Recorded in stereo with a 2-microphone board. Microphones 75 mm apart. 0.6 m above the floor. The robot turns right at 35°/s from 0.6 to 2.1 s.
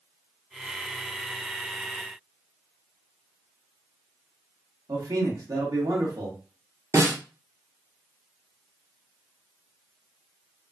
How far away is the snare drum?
About 0.8 m.